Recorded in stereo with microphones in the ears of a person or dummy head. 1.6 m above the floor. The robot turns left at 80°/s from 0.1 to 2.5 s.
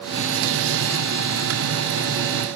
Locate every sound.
Only background noise.